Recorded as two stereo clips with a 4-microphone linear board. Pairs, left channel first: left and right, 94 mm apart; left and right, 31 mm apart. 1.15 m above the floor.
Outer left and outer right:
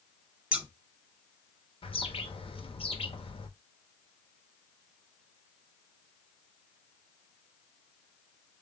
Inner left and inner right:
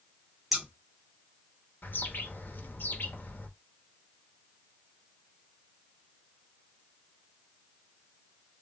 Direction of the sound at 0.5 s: 10° right (ahead or behind).